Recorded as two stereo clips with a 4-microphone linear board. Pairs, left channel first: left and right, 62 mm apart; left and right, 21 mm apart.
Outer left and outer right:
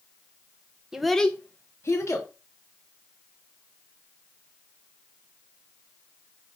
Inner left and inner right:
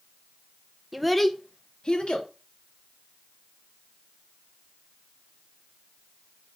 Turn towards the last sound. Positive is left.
turn(degrees=55)  # may be behind; listen again after turning